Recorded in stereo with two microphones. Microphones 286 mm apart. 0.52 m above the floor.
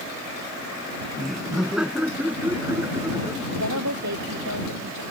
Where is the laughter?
Centre (ahead or behind); by 4.5 s 15° right (ahead or behind).